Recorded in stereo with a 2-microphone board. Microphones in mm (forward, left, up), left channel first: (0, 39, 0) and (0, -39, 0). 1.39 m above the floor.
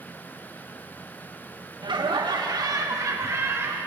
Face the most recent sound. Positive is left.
turn(degrees=-30)  # may be behind; listen again after turning